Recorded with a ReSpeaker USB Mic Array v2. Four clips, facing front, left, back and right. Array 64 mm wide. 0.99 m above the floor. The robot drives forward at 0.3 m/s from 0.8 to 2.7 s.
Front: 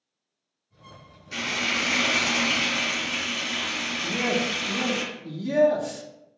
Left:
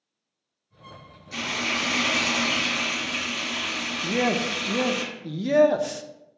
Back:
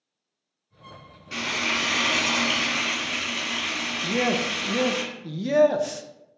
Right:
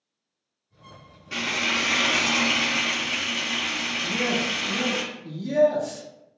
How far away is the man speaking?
About 0.6 m.